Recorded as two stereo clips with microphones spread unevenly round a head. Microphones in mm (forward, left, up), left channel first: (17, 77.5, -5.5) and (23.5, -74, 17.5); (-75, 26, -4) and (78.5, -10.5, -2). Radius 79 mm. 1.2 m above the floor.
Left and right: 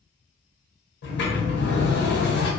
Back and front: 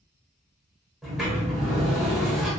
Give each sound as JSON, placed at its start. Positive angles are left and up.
{"t": 1.0, "sound": "a sliding door", "azimuth_deg": 75, "distance_m": 0.9}